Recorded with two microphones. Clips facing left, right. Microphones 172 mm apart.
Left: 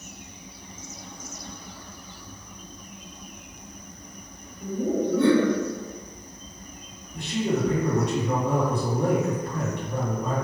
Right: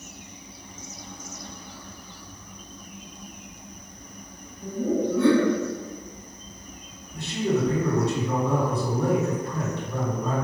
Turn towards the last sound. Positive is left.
turn(degrees=20)  # may be behind; listen again after turning